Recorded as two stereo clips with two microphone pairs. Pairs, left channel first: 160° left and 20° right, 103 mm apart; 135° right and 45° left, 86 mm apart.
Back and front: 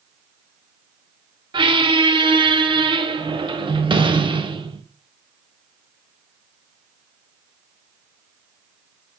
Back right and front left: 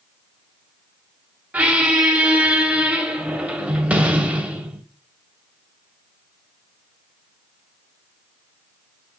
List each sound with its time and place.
1.5 s a squeak: 25° right, 0.6 m